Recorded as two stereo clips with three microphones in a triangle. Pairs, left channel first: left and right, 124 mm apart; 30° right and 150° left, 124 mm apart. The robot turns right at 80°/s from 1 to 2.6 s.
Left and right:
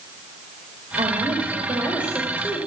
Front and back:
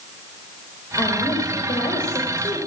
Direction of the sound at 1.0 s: 95° right.